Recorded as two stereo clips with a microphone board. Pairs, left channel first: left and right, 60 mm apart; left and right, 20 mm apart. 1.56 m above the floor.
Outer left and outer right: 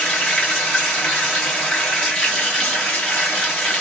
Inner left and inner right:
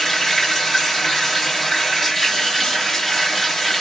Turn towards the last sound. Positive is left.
turn(degrees=15)  # may be behind; listen again after turning